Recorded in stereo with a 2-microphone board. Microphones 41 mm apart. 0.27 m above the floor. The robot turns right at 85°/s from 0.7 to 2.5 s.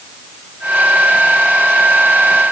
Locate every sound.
Only background noise.